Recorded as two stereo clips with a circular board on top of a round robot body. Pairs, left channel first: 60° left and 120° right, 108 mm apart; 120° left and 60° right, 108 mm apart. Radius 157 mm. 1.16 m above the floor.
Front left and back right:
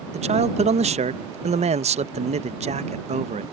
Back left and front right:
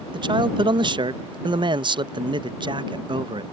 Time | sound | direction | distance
0.1 | a man speaking | 105° right | ?